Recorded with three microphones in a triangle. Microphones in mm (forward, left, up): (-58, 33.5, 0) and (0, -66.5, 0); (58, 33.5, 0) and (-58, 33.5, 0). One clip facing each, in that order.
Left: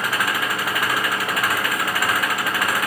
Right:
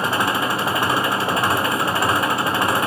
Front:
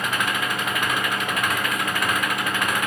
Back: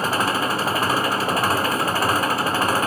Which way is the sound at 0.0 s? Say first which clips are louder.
Right 3 dB, back 4 dB; 125° right.